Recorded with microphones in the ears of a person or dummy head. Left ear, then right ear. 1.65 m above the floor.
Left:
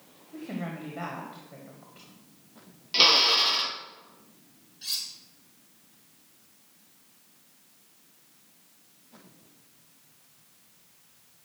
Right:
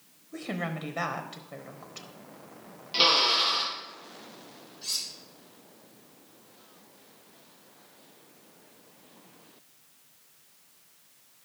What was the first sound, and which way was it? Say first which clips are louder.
A woman speaking: right 3 dB; 75° right (ahead or behind).